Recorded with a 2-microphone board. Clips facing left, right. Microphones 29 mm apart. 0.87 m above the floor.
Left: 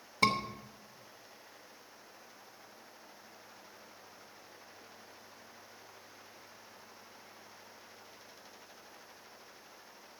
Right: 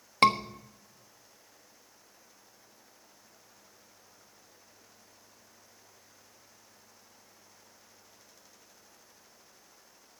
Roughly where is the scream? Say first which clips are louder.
Right 6 dB; right.